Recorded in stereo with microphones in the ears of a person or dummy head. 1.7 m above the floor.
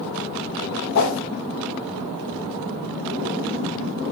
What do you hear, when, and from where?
0.9 s a whoosh: 50° left (ahead or behind), 0.7 m